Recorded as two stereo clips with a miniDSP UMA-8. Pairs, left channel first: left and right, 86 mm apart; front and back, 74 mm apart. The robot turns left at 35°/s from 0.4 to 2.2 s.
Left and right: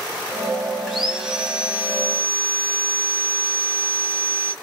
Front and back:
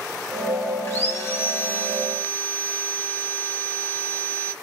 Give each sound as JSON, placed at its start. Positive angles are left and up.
{"t": 0.9, "sound": "sawing", "azimuth_deg": -5, "distance_m": 1.2}